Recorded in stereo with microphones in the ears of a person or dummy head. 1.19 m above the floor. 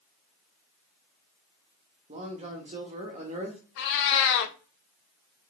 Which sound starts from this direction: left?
A cat meowing, at 3.8 s.